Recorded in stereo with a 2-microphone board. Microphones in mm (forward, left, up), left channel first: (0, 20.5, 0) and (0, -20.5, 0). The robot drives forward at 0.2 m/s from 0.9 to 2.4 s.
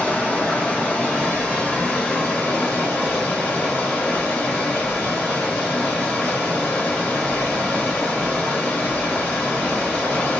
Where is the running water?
25° left (ahead or behind), 1.4 m; by 10.4 s 20° left (ahead or behind), 1.6 m.